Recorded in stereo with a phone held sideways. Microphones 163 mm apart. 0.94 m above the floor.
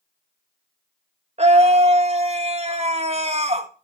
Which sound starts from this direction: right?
A scream, at 1.4 s.